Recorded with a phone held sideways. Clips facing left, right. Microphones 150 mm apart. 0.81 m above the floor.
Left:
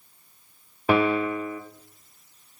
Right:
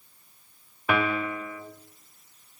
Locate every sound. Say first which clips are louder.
0.9 s a piano: left 5 dB; 30° left (ahead or behind), 0.6 m